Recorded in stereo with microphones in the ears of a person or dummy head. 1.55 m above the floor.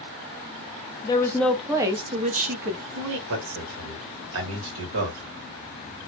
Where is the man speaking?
60° right (ahead or behind), 1.2 m.